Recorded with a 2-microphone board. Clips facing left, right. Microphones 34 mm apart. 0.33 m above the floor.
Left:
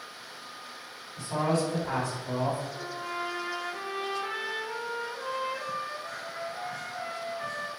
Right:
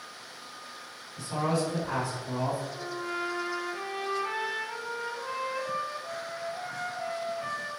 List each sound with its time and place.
1.2 s a man speaking: 50° left (ahead or behind), 1.9 m; by 2.6 s 45° left (ahead or behind), 1.4 m
2.7 s a trumpet: 45° left (ahead or behind), 1.1 m